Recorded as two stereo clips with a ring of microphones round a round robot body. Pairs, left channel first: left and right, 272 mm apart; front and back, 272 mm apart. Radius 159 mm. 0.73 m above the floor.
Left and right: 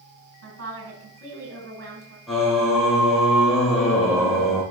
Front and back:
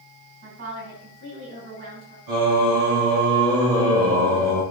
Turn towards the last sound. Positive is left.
turn(degrees=180)